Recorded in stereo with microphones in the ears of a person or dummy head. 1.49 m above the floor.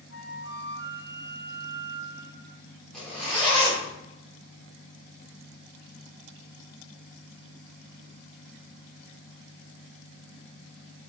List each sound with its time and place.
0.1 s a flute: 70° left (ahead or behind), 1.0 m
2.9 s a zipper: 10° left (ahead or behind), 1.1 m